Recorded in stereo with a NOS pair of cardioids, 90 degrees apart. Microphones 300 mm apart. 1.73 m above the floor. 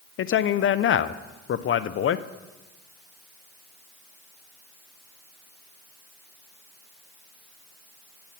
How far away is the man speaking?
About 0.5 m.